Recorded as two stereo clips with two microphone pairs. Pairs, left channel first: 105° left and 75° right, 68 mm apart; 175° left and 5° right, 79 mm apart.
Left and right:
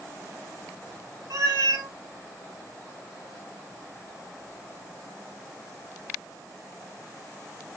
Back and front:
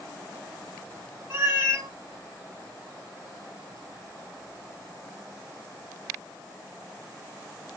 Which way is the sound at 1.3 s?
65° right.